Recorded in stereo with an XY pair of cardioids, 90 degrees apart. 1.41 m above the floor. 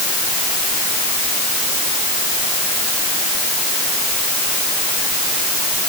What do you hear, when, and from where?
Only background noise.